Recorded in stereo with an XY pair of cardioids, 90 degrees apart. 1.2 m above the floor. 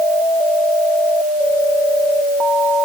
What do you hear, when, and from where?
Only background noise.